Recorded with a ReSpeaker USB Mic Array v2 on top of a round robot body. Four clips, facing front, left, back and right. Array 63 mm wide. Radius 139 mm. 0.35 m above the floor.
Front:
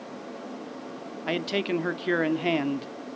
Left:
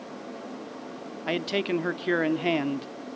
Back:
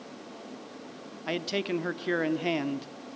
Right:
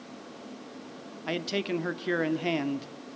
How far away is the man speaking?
About 1.1 m.